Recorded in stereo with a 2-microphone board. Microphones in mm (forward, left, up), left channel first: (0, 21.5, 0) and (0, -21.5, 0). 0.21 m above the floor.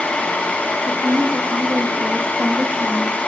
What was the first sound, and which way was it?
A woman speaking, 65° right (ahead or behind).